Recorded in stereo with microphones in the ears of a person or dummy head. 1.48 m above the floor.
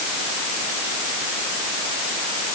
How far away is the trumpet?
I don't hear a trumpet.